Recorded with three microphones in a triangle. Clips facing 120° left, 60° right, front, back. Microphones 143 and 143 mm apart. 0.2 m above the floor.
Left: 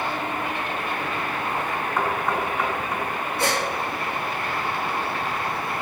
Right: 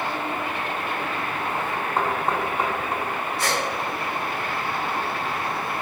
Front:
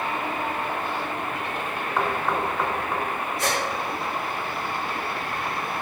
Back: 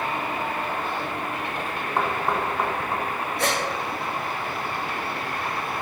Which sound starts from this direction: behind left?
A gasp, at 3.4 s.